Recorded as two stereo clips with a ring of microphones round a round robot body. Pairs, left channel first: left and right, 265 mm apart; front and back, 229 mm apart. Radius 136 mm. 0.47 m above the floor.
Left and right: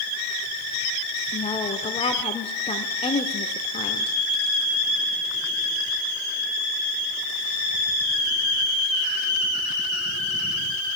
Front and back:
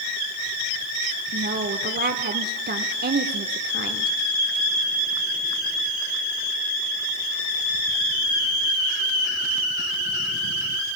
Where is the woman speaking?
150° left, 1.5 m.